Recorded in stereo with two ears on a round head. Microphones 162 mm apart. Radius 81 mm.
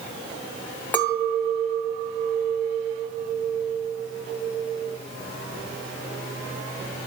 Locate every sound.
0.9 s a clink: 10° left (ahead or behind), 2.5 m